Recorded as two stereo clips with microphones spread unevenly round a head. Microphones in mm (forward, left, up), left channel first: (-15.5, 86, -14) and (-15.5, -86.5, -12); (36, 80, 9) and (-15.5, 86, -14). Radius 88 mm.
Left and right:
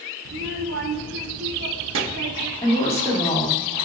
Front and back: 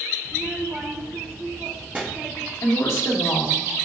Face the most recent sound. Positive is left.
turn(degrees=15)